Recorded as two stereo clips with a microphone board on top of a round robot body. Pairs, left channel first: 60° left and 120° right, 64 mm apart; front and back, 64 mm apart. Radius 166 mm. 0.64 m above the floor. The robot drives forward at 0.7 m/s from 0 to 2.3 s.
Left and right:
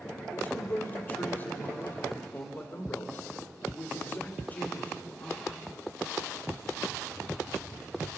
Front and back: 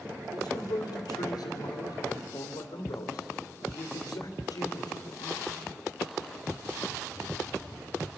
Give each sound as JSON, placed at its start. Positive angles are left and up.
{"t": 0.3, "sound": "a man speaking", "azimuth_deg": 0, "distance_m": 4.0}